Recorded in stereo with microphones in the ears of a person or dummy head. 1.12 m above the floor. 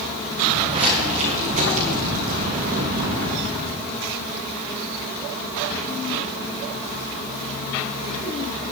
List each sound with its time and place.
0.4 s footsteps: 25° right (ahead or behind), 3 m; by 3.4 s 55° right (ahead or behind), 2 m